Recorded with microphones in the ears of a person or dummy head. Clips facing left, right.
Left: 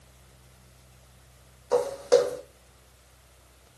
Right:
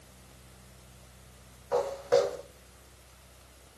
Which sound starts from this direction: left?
Footsteps, at 1.7 s.